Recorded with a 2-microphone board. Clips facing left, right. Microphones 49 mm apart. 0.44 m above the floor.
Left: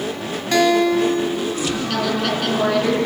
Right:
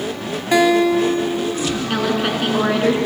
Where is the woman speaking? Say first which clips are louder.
Right 2 dB; 25° right (ahead or behind), 4.5 m.